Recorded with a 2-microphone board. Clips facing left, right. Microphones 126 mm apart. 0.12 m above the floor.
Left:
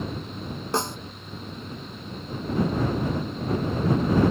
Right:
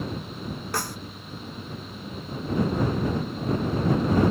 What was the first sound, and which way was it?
A snare drum, 20° left (ahead or behind).